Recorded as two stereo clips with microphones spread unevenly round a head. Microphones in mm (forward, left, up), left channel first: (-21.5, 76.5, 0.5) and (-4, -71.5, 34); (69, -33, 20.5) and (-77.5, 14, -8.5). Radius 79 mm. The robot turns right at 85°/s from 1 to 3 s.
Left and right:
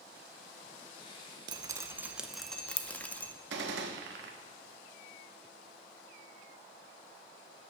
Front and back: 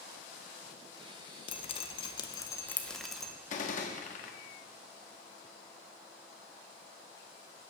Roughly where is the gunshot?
Ahead right.